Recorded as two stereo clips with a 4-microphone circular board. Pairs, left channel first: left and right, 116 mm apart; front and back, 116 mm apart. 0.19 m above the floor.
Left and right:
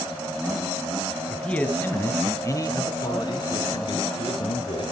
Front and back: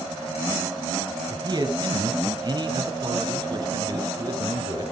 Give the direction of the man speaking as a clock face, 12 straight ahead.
6 o'clock.